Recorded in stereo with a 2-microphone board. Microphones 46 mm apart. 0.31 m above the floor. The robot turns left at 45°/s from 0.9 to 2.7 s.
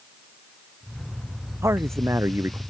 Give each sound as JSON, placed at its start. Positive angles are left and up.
{"t": 1.6, "sound": "a man speaking", "azimuth_deg": -85}